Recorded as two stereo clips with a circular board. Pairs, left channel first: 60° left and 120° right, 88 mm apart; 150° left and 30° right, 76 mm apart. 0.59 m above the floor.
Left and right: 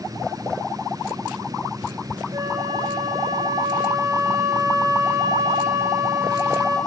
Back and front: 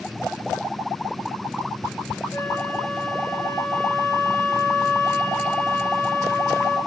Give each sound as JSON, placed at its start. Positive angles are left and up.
{"t": 2.3, "sound": "a flute", "azimuth_deg": -155, "distance_m": 2.0}